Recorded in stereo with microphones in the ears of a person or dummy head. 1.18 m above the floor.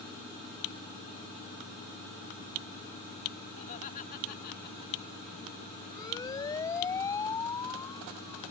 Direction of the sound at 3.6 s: 40° left (ahead or behind).